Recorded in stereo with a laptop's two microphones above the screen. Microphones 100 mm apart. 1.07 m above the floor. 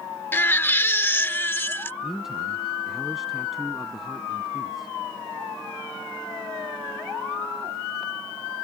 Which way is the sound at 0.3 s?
20° left (ahead or behind).